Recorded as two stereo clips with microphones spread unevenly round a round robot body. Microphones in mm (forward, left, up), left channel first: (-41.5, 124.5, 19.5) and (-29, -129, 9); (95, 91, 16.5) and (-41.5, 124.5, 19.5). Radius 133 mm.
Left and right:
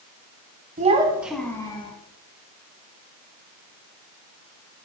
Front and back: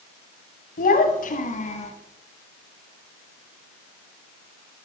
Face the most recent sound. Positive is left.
turn(degrees=20)